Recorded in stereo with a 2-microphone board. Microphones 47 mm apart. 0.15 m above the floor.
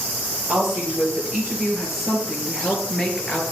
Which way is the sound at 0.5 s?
20° right (ahead or behind).